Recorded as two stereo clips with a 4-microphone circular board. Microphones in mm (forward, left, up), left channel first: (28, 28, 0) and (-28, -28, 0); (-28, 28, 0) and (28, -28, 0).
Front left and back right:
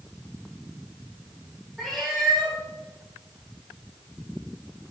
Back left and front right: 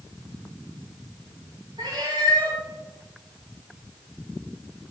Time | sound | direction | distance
1.8 | a cat meowing | 50° right | 5.5 m